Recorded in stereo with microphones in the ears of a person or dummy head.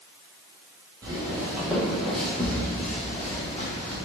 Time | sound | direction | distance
1.0 | footsteps | 25° right (ahead or behind) | 1.3 m